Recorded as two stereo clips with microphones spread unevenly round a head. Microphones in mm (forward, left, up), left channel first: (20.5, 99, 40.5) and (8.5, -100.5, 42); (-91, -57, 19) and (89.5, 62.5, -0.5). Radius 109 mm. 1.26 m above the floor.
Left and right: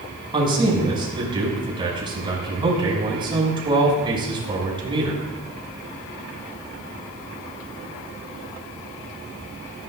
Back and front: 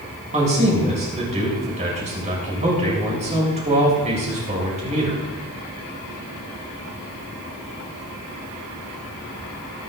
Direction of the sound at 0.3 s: 25° right.